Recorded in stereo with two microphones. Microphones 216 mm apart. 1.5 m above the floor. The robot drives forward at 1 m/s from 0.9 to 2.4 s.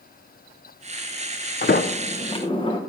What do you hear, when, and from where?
1.6 s a sliding door: 50° left (ahead or behind), 0.5 m; by 2.8 s 25° left (ahead or behind), 1.0 m